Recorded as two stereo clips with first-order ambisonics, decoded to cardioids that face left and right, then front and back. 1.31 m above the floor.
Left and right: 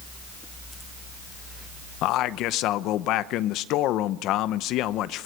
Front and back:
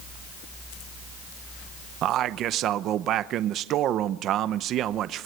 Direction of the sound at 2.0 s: 130° left.